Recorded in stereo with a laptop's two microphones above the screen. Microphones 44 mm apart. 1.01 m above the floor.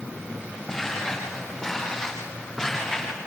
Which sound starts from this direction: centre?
Footsteps, at 0.7 s.